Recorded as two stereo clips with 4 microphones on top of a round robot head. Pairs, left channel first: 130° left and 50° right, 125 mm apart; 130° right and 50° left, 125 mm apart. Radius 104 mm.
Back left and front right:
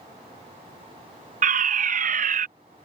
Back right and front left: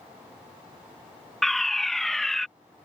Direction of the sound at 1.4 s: 40° right.